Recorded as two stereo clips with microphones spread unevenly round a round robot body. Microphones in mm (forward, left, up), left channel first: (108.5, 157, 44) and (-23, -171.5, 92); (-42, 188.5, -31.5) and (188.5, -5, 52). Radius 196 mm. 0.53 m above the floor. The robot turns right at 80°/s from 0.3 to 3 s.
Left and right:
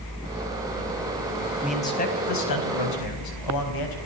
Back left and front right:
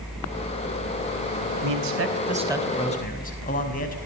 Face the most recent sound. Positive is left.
turn(degrees=85)